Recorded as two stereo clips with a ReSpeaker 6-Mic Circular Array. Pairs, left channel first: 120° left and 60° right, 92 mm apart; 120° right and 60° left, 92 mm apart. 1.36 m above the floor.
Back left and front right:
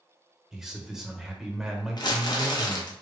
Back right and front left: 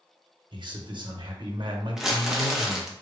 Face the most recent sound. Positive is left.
turn(degrees=145)